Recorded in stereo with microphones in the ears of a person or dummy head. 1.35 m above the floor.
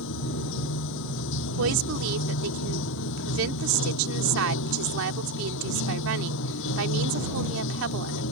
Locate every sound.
0.0 s running water: 70° left (ahead or behind)
1.6 s a woman speaking: 80° right